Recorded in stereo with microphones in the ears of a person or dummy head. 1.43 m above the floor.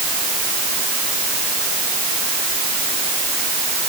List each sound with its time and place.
Only background noise.